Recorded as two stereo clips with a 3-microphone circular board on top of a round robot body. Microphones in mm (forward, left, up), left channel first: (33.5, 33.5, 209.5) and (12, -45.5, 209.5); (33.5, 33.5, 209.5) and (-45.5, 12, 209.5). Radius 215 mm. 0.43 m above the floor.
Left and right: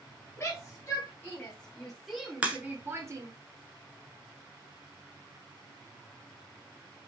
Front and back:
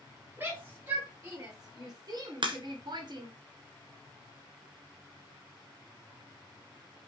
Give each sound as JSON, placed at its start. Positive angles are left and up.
{"t": 0.4, "sound": "a shout", "azimuth_deg": 135, "distance_m": 4.0}
{"t": 2.4, "sound": "a crack", "azimuth_deg": 180, "distance_m": 1.5}